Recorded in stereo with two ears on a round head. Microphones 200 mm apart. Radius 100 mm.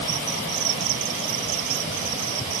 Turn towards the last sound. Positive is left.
No sound to turn to.